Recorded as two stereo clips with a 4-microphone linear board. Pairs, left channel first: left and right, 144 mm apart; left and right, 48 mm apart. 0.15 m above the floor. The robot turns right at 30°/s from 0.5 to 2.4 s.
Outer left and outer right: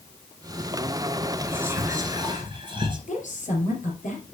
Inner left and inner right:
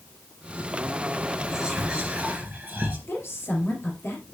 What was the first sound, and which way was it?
Whispering, 10° right (ahead or behind).